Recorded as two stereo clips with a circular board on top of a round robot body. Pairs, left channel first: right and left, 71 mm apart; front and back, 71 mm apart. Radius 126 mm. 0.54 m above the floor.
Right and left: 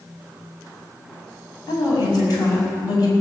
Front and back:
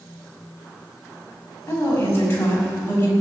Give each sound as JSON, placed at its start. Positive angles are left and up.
{"t": 1.7, "sound": "a woman speaking", "azimuth_deg": -60, "distance_m": 5.5}